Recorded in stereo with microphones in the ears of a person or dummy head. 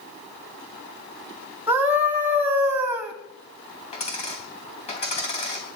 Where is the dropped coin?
30° left (ahead or behind), 3.5 m.